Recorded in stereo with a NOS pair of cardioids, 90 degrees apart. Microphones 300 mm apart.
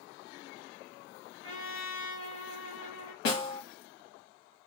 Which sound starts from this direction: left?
A trumpet, at 1.4 s.